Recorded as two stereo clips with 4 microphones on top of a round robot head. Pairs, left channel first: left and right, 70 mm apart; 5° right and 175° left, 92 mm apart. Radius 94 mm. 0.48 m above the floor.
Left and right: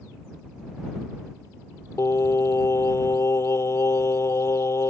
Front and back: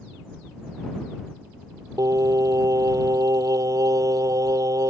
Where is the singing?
130° left.